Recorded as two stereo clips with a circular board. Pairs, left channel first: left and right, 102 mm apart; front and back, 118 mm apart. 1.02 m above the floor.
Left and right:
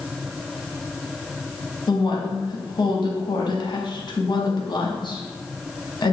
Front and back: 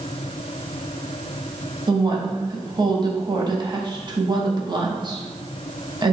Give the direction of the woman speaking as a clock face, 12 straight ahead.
8 o'clock.